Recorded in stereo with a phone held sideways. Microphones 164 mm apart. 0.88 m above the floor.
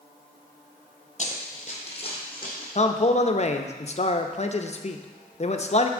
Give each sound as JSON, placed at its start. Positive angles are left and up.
{"t": 1.2, "sound": "running footsteps", "side_deg": 45, "distance_m": 1.2}
{"t": 2.8, "sound": "a man speaking", "side_deg": 45, "distance_m": 0.5}